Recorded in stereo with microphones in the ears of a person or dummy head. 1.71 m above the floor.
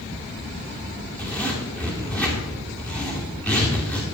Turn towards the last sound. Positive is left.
turn(degrees=10)  # may be behind; listen again after turning